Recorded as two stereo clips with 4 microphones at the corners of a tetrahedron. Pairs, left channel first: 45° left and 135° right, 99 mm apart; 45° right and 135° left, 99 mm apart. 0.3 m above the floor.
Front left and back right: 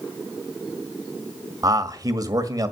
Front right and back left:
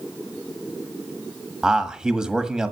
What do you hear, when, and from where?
1.6 s a man speaking: 145° right, 1.4 m